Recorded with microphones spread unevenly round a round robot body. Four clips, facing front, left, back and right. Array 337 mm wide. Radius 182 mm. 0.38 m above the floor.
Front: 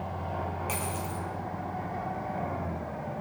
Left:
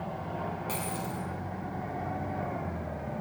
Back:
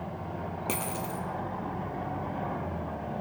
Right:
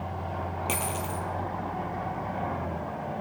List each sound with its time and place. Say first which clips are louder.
0.7 s a dropped coin: right 3 dB, even; 160° right, 1.4 m